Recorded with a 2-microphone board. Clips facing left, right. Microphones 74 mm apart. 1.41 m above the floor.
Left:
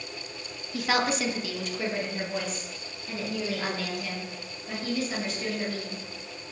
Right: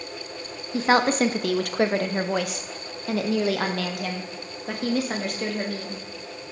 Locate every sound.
0.7 s a woman speaking: 30° right (ahead or behind), 0.8 m; by 6.0 s 65° right (ahead or behind), 3 m